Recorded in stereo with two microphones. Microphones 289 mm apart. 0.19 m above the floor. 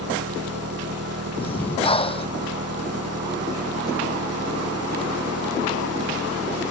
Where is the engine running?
55° right (ahead or behind).